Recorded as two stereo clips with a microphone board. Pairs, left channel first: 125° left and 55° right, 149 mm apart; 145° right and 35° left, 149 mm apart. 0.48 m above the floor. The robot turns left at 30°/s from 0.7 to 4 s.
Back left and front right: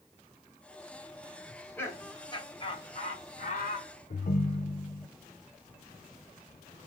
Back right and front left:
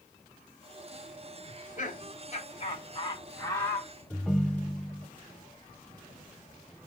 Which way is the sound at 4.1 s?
125° left.